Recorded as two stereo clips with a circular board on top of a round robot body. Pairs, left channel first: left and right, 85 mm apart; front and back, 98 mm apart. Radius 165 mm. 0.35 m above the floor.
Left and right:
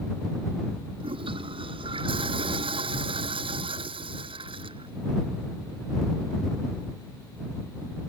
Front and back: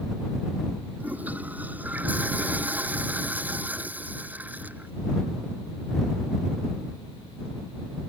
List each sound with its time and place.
1.0 s a toilet flushing: 105° right